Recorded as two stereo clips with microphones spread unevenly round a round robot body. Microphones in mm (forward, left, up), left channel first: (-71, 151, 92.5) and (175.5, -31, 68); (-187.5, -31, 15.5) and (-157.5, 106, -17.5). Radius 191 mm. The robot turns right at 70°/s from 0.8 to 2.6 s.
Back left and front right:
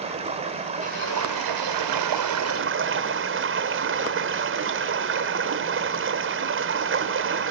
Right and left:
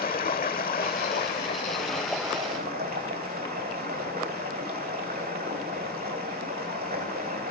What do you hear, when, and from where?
0.0 s running water: 110° right, 1.9 m; by 7.5 s 15° left, 1.9 m